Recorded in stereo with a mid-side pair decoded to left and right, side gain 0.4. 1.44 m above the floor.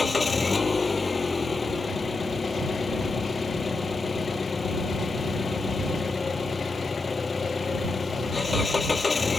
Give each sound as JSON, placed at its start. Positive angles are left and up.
{"t": 0.0, "sound": "an engine running", "azimuth_deg": 35}